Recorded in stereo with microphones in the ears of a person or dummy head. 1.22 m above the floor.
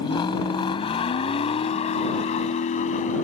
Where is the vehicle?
20° left (ahead or behind); by 3.3 s 35° left (ahead or behind).